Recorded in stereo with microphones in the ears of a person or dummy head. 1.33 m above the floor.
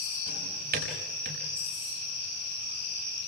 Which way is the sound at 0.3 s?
55° right (ahead or behind).